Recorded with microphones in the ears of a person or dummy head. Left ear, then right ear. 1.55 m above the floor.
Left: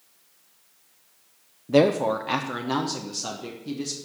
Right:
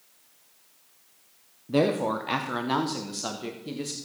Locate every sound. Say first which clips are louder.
1.7 s a woman speaking: left 5 dB; 20° left (ahead or behind), 0.6 m; by 4.0 s 30° right (ahead or behind), 1.8 m